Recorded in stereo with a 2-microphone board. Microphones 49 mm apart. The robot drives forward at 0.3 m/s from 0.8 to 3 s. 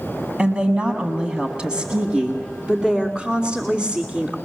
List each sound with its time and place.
0.4 s a woman speaking: 20° right (ahead or behind), 1.8 m; by 4.4 s 15° right (ahead or behind), 2 m